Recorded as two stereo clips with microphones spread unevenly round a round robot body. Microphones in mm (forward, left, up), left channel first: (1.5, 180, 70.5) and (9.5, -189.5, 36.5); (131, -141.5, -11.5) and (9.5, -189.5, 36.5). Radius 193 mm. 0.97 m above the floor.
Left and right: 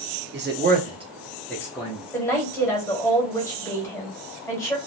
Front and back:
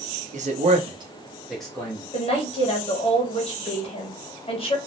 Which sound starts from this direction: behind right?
A man speaking, at 0.3 s.